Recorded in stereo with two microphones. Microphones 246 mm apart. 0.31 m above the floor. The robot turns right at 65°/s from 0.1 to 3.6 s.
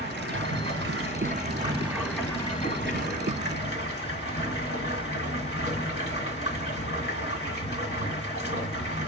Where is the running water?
125° right, 1.7 m; by 9.1 s 105° left, 1.7 m.